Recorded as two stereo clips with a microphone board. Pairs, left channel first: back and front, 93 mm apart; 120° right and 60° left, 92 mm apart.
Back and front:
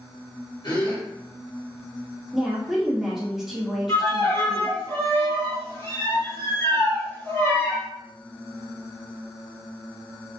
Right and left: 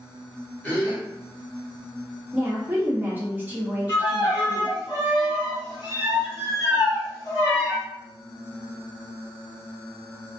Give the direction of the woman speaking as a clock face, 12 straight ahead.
9 o'clock.